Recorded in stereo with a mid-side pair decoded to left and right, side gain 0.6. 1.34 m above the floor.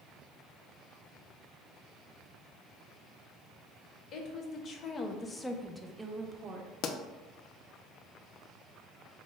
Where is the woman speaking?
55° left, 1.2 m; by 6.7 s 45° right, 0.9 m.